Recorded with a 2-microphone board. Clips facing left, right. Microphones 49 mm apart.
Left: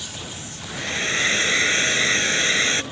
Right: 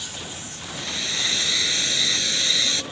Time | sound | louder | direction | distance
0.7 | a hair dryer | left 6 dB | 35° left (ahead or behind) | ?